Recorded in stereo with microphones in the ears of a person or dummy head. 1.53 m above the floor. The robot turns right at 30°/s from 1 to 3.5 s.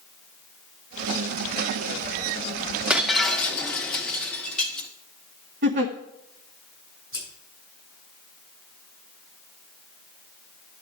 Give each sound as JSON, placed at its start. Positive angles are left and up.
{"t": 2.9, "sound": "breaking glass", "side_deg": -5, "distance_m": 1.2}
{"t": 5.6, "sound": "a giggle", "side_deg": -35, "distance_m": 0.9}
{"t": 7.1, "sound": "scissors", "side_deg": -20, "distance_m": 6.5}